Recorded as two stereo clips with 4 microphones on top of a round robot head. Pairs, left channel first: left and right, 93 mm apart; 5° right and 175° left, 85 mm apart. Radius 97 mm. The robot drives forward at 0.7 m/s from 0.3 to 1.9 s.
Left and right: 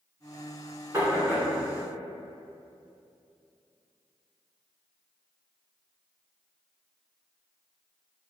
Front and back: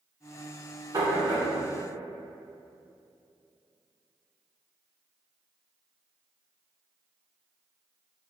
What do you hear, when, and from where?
0.9 s knocking: 150° right, 1.3 m; by 1.4 s 155° right, 1.6 m